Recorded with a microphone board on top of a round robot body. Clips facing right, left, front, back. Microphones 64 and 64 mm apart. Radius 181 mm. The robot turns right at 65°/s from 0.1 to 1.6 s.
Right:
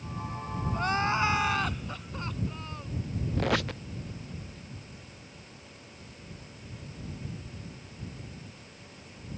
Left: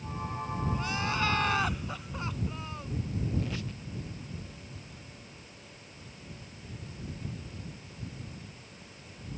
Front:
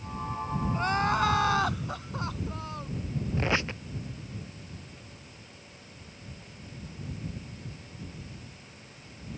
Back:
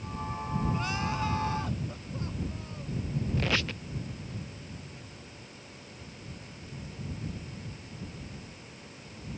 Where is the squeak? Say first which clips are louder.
Right 7 dB, front 3 dB; 65° right.